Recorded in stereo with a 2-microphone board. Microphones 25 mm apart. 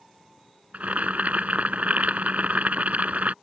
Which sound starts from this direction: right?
Boiling, at 0.7 s.